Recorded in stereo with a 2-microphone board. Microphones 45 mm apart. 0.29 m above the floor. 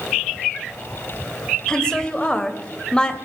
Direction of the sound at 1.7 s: 20° left (ahead or behind).